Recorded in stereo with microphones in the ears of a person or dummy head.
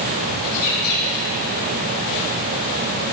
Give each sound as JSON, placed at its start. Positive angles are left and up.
{"t": 0.4, "sound": "a bird", "side_deg": 50, "distance_m": 7.0}